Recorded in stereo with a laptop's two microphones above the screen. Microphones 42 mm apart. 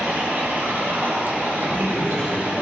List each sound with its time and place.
0.0 s running water: 65° right (ahead or behind), 2.5 m
1.6 s a man speaking: 50° left (ahead or behind), 4 m